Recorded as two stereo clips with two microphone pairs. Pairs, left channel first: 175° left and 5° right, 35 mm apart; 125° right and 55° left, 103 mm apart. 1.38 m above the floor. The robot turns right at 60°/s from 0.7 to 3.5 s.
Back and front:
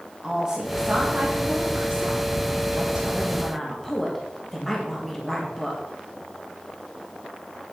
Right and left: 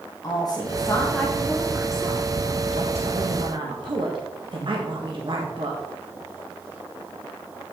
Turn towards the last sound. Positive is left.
turn(degrees=95)